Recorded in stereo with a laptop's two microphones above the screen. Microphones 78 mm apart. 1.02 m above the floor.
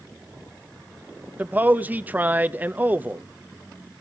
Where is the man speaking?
20° right (ahead or behind), 0.7 m.